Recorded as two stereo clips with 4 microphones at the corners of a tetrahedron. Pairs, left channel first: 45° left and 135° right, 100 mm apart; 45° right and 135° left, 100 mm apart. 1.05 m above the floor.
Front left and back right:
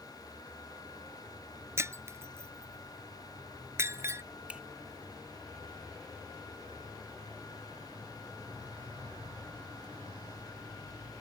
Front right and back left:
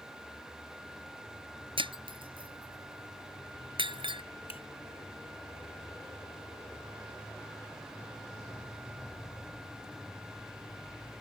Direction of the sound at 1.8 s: 160° left.